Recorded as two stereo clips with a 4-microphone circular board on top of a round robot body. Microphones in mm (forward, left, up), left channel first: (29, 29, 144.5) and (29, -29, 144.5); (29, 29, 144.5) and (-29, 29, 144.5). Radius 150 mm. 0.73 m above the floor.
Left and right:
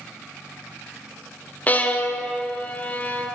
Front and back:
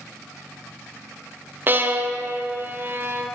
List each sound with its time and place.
1.7 s a violin: 140° left, 1.5 m